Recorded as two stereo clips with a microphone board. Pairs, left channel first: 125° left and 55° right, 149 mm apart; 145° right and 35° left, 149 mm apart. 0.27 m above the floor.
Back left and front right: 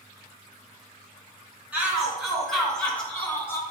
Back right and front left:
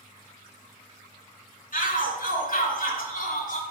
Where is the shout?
140° right, 2.5 m; by 3.6 s 165° right, 2.5 m.